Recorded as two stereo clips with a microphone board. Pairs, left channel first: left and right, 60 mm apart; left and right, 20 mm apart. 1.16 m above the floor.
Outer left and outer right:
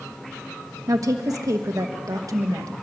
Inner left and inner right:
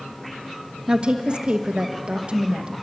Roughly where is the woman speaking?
Right.